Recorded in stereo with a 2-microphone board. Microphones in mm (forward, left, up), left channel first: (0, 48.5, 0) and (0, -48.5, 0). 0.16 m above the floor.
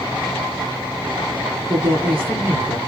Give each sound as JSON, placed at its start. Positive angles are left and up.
{"t": 1.7, "sound": "a woman speaking", "side_deg": -65, "distance_m": 3.5}